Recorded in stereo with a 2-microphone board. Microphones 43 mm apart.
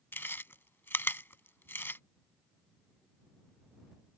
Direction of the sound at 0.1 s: 60° left (ahead or behind).